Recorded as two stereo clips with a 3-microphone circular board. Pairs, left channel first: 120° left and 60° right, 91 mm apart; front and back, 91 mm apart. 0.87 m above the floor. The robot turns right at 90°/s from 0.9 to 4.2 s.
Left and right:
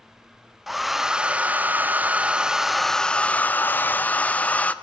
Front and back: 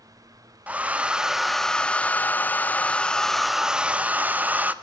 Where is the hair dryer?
140° right, 0.7 m; by 4.7 s 155° left, 0.7 m.